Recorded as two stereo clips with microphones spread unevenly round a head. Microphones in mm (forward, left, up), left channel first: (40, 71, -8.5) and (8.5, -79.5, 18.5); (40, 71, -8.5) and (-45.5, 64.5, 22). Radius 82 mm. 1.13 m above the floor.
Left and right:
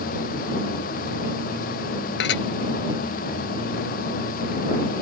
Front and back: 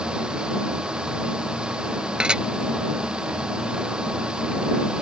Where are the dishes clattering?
105° left.